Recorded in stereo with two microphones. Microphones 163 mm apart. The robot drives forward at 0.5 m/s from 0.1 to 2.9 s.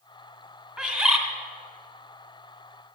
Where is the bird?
10° right (ahead or behind), 1.8 m.